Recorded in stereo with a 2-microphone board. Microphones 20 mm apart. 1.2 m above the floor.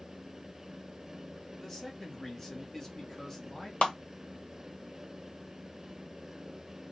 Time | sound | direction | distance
1.6 | a man speaking | 25° left (ahead or behind) | 1.3 m
3.8 | a clap | 65° left (ahead or behind) | 1.0 m